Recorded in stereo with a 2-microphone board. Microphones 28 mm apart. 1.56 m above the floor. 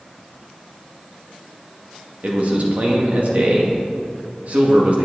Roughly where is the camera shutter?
No camera shutter in this recording.